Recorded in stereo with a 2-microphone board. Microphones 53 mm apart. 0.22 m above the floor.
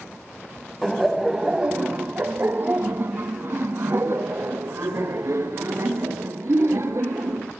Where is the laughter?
Centre (ahead or behind), 1.1 m; by 7.5 s 65° right (ahead or behind), 3.5 m.